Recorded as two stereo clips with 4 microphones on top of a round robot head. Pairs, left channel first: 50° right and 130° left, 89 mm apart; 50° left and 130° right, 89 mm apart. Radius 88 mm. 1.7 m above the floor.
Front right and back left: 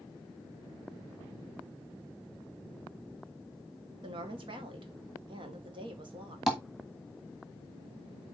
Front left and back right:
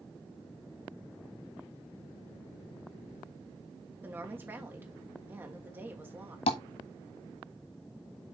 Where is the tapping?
40° left, 1.6 m.